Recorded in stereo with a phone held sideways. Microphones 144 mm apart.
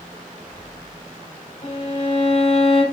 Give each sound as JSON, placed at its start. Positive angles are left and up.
{"t": 1.6, "sound": "a violin", "side_deg": 45, "distance_m": 5.5}